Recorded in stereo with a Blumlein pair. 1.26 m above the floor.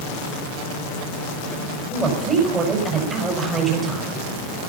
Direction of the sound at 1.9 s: 20° right.